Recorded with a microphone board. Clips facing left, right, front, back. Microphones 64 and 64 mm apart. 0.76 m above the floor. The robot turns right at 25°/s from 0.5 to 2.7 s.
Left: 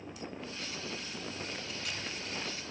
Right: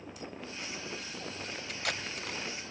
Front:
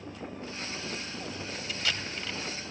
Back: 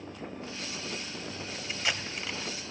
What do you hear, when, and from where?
1.7 s tape being pulled: 115° right, 1.6 m; by 2.4 s 100° right, 1.6 m